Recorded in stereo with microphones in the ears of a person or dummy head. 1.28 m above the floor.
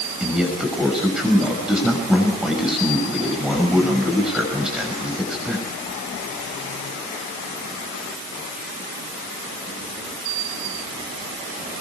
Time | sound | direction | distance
0.2 | a man speaking | 5° right (ahead or behind) | 6 m